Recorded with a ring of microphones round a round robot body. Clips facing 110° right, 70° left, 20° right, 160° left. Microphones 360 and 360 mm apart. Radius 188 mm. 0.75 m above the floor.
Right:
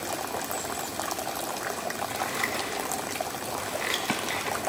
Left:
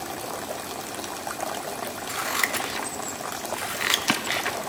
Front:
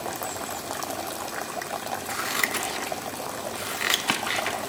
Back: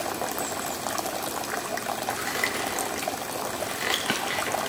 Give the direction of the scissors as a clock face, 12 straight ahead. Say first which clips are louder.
Even, back 1 dB; 11 o'clock.